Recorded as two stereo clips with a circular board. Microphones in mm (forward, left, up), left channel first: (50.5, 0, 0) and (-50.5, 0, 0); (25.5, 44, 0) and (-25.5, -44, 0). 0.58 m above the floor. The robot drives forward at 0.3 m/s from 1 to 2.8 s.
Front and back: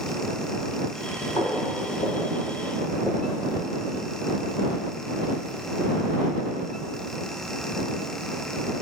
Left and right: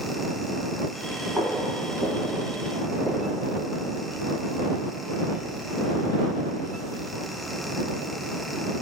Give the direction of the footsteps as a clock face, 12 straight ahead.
1 o'clock.